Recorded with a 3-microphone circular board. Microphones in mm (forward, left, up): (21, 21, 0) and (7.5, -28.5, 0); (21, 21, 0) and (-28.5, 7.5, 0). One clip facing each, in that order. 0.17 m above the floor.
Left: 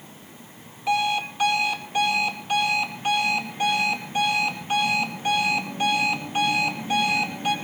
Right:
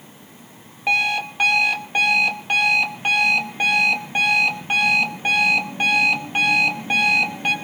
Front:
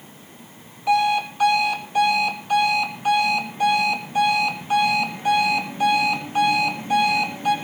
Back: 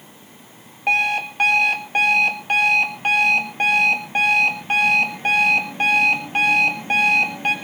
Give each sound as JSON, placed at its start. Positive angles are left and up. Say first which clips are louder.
{"t": 0.9, "sound": "an alarm clock", "louder": "right 3 dB, front 1 dB", "azimuth_deg": -140, "distance_m": 2.5}